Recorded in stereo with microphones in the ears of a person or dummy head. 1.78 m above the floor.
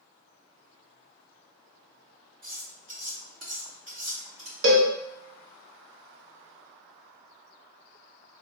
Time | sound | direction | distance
2.4 | cutlery clinking | 50° right (ahead or behind) | 2.0 m
4.6 | a cowbell | 65° right (ahead or behind) | 1.0 m